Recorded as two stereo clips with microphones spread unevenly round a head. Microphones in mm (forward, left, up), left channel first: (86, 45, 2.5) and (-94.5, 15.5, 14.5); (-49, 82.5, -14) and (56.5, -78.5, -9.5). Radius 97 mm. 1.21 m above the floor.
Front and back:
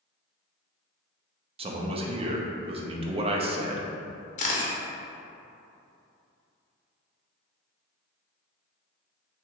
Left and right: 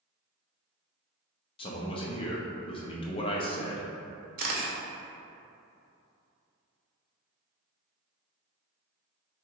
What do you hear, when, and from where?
1.6 s a man speaking: 155° left, 0.6 m
4.4 s a camera shutter: 25° right, 0.9 m